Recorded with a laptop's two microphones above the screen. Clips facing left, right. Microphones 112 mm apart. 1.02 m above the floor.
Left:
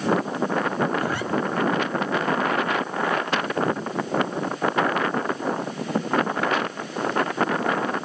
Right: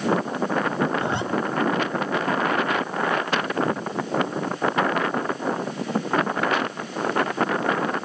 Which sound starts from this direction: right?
A zipper, at 1.0 s.